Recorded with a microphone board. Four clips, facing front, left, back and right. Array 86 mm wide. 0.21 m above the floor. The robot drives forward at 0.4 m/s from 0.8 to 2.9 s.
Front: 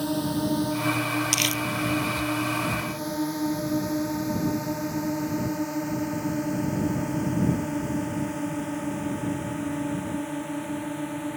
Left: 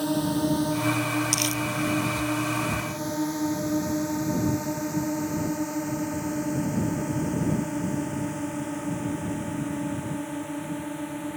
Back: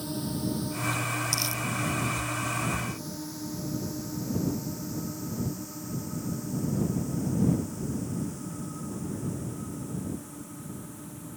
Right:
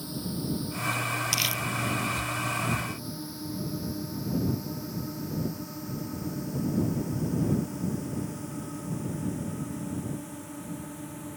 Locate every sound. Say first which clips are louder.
0.0 s a drone: left 10 dB, front 6 dB; 55° left; by 11.4 s 30° left
1.3 s crumpling: left 5 dB, front 6 dB; 15° right